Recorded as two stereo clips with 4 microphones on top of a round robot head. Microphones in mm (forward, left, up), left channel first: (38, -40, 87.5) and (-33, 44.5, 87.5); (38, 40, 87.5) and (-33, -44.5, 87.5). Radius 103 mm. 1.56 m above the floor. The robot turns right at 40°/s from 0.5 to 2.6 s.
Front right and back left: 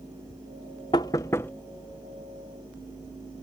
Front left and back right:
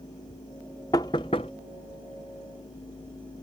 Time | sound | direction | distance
0.9 | knocking | 5° right | ?